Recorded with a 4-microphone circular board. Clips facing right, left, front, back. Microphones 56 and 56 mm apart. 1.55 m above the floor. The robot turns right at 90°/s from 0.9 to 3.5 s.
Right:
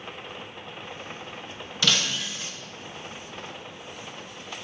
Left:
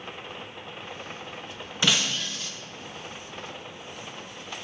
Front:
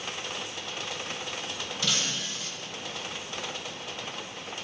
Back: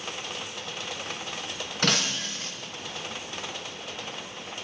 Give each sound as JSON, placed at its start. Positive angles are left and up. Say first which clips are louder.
{"t": 1.8, "sound": "breaking glass", "louder": "even, back 5 dB", "azimuth_deg": 155, "distance_m": 1.2}